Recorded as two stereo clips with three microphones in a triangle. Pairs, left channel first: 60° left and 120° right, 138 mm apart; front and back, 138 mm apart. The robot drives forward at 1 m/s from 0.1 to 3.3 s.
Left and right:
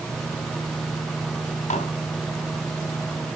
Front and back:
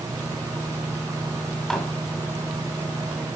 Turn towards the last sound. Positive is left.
turn(degrees=125)